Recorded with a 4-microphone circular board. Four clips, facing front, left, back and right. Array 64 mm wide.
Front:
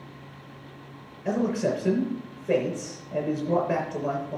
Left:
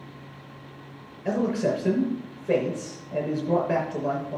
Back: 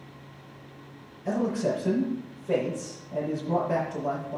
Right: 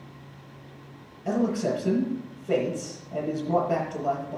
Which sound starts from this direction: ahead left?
A man speaking, at 1.2 s.